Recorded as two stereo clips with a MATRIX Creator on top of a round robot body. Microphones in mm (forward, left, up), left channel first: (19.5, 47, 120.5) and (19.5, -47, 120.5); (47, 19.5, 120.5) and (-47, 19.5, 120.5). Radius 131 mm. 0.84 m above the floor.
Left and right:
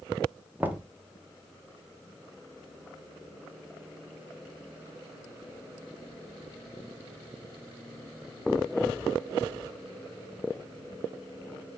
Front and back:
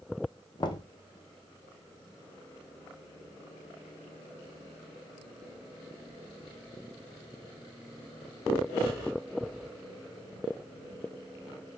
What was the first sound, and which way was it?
Knocking, 20° right.